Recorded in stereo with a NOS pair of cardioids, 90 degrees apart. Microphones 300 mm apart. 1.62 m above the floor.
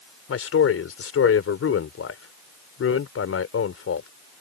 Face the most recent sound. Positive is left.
turn(degrees=50)